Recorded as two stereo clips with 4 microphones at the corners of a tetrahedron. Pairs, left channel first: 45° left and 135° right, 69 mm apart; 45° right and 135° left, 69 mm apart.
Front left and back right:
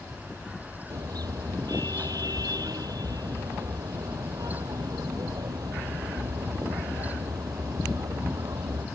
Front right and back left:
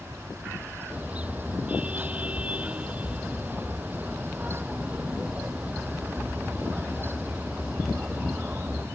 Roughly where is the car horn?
Behind right.